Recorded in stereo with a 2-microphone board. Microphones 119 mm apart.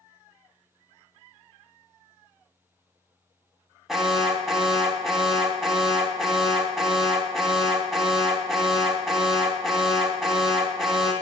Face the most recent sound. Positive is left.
turn(degrees=0)  # may be behind; listen again after turning